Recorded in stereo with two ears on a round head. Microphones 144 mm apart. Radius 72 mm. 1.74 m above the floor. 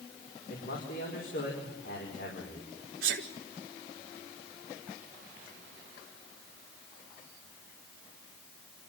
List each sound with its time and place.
0.5 s a man speaking: 60° left (ahead or behind), 5 m
3.0 s a sneeze: 60° right (ahead or behind), 1.4 m